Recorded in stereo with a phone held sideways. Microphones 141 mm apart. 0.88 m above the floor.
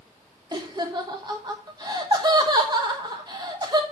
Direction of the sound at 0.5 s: 30° right (ahead or behind).